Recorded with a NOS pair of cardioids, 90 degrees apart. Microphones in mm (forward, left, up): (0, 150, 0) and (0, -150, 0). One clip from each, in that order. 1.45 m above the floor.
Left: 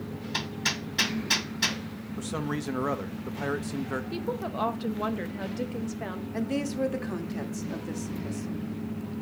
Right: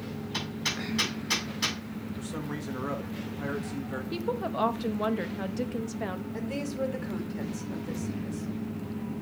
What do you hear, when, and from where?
0.3 s hammering: 20° left, 2 m
2.2 s a man speaking: 40° left, 1.3 m
4.1 s a woman speaking: 10° right, 0.8 m
6.3 s a woman speaking: 25° left, 1.7 m